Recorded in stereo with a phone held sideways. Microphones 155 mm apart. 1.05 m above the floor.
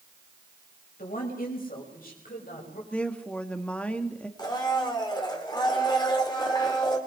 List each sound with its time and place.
1.0 s a woman speaking: 75° left (ahead or behind), 6 m; by 2.8 s 80° left, 6.5 m
2.9 s a woman speaking: 10° left (ahead or behind), 1.9 m
4.4 s a blender: 30° left (ahead or behind), 3 m